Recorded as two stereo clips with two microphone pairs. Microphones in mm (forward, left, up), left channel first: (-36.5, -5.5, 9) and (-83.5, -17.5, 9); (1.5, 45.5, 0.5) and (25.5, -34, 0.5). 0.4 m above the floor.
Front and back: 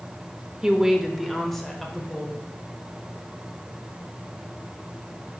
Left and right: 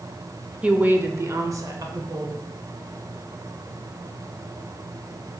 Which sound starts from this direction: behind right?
A woman speaking, at 0.6 s.